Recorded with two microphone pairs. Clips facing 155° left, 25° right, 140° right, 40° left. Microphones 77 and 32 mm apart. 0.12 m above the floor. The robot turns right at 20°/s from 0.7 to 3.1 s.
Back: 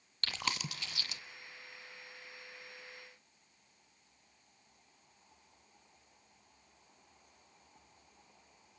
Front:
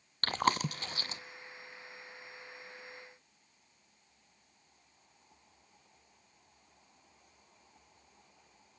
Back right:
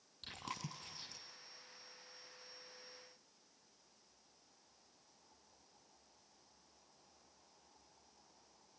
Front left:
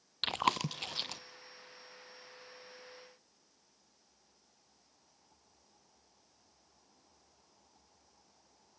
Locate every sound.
0.2 s chewing: 20° left, 0.7 m; by 1.2 s 30° left, 0.7 m